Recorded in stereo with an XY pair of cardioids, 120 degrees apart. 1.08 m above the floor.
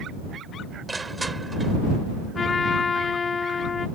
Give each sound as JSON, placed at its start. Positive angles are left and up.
{"t": 0.9, "sound": "crushing", "azimuth_deg": -15}
{"t": 2.4, "sound": "a trumpet", "azimuth_deg": 30}